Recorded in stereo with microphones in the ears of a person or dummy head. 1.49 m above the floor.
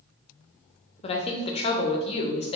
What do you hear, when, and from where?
1.0 s a woman speaking: 35° left (ahead or behind), 0.6 m